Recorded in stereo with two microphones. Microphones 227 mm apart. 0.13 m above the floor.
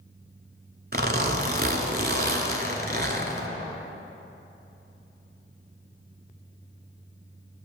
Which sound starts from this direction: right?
A zipper, at 0.9 s.